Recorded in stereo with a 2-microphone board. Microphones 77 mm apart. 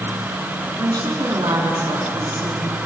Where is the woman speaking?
65° right (ahead or behind), 3 m.